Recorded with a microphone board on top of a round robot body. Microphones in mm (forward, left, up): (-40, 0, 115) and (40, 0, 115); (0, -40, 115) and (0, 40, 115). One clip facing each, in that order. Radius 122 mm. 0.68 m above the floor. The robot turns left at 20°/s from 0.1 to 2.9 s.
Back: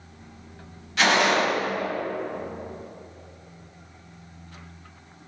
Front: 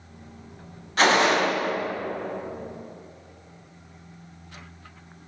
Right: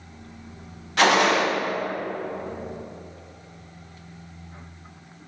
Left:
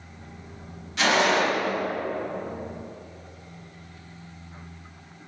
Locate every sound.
1.0 s a gunshot: 55° right, 1.7 m; by 1.4 s 60° right, 1.7 m